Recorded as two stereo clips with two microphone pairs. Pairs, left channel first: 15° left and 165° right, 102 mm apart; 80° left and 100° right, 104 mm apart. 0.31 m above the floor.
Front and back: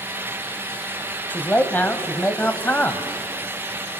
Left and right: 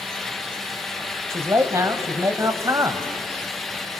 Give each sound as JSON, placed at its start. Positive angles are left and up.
{"t": 1.3, "sound": "a man speaking", "azimuth_deg": -50, "distance_m": 1.3}